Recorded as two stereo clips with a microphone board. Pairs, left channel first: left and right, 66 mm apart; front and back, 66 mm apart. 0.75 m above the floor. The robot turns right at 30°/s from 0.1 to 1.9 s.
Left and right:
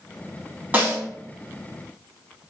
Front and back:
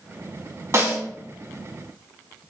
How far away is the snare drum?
About 0.8 m.